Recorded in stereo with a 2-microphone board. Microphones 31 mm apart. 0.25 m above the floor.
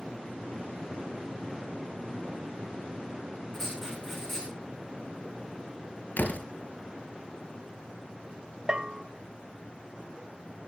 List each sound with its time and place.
3.5 s writing: 15° left (ahead or behind), 6.5 m
6.2 s a door slam: 70° left (ahead or behind), 3 m
8.7 s a bell: 25° right (ahead or behind), 1.0 m